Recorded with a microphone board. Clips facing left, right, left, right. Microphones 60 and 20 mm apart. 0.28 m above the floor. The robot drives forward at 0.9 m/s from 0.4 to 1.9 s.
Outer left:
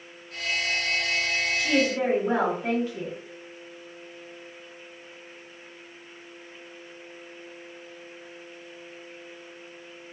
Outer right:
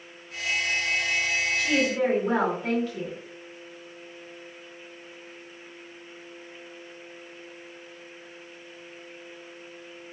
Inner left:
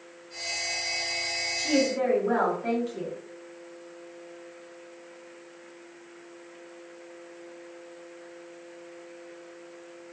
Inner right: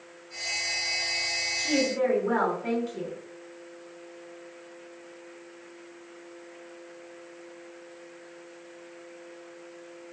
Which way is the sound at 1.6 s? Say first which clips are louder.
Outer left 1 dB, inner left 1 dB; 15° left (ahead or behind).